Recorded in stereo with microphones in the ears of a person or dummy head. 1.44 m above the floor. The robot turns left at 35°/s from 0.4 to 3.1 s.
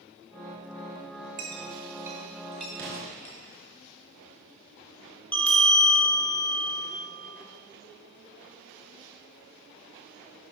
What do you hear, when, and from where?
1.4 s a clink: 25° right (ahead or behind), 0.7 m; by 3.4 s 10° left (ahead or behind), 0.7 m
2.8 s an explosion: 60° right (ahead or behind), 1.7 m; by 3.1 s 55° right (ahead or behind), 1.7 m
5.3 s a bell: 5° left (ahead or behind), 0.8 m